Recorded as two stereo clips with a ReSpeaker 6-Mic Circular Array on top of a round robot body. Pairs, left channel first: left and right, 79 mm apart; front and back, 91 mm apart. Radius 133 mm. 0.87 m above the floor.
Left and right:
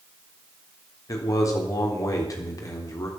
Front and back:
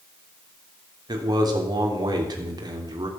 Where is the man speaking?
135° left, 3.5 m.